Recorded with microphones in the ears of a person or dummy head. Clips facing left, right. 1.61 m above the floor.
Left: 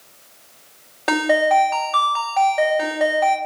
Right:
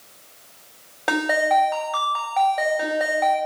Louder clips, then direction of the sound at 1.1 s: Left 4 dB; centre (ahead or behind).